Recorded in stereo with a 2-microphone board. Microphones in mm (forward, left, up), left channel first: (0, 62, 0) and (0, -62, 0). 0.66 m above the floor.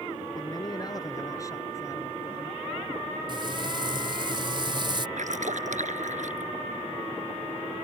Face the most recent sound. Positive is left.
turn(degrees=-80)